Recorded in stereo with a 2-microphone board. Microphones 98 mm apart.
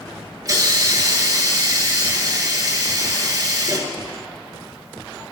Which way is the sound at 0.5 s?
35° right (ahead or behind).